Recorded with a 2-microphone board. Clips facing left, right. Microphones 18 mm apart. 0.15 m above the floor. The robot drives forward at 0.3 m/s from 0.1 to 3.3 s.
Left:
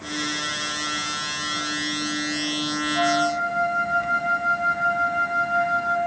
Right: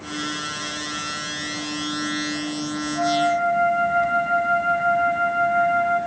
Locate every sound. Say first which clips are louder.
3.0 s a flute: right 2 dB; 45° left (ahead or behind), 5 m